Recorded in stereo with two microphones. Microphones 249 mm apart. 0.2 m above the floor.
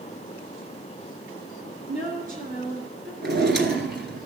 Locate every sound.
1.9 s a woman speaking: 40° right (ahead or behind), 2 m
3.2 s a drawer: 50° right (ahead or behind), 1.1 m